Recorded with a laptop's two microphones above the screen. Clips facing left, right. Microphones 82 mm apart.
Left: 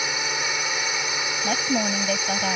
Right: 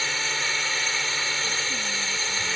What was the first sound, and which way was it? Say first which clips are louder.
A drone: left 2 dB; 15° left (ahead or behind).